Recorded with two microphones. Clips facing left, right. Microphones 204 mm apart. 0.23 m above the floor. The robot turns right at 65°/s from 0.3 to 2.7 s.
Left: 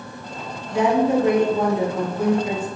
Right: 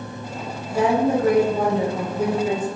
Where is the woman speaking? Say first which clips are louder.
Left 1 dB; 115° right, 2.0 m; by 2.6 s 15° left, 2.0 m.